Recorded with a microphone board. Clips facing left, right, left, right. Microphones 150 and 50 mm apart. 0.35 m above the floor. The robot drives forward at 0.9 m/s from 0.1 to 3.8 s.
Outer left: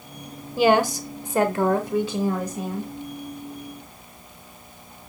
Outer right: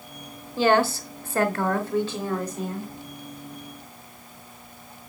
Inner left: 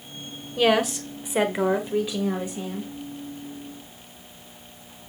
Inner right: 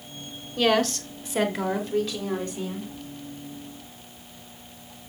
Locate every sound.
0.6 s a woman speaking: 10° left (ahead or behind), 1.1 m